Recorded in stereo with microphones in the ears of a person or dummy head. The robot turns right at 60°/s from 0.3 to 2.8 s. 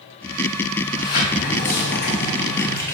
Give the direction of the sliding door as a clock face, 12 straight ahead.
11 o'clock.